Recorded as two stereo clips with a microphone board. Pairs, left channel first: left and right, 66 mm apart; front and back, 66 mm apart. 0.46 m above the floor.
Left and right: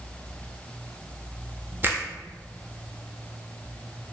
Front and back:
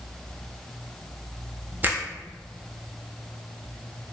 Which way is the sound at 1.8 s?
130° right.